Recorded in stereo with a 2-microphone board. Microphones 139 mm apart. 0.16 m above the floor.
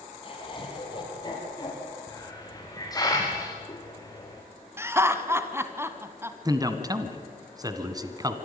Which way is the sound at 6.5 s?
25° right (ahead or behind).